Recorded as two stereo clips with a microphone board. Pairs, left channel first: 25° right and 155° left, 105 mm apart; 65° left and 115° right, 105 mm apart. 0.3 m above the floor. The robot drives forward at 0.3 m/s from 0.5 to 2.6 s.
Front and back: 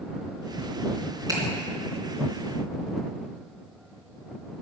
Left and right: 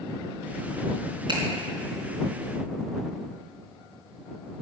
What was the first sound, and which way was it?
A finger snap, 150° right.